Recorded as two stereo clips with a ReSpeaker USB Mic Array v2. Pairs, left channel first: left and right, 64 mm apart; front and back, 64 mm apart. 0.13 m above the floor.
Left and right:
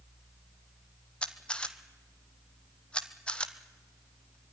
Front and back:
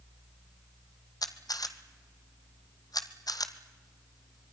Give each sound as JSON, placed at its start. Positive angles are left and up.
{"t": 1.2, "sound": "a camera shutter", "azimuth_deg": 15, "distance_m": 1.2}